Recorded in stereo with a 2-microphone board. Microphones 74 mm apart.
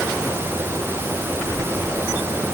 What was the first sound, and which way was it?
Only background noise.